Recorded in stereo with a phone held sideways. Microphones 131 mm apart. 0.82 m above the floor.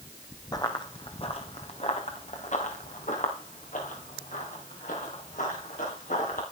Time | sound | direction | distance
0.5 | running footsteps | 30° left (ahead or behind) | 1.5 m